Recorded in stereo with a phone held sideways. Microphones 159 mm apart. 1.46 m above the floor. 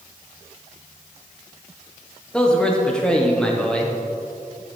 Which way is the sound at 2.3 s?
5° left (ahead or behind).